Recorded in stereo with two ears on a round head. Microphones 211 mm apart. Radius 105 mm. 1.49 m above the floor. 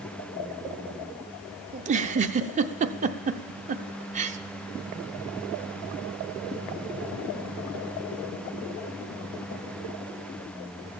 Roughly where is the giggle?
Right.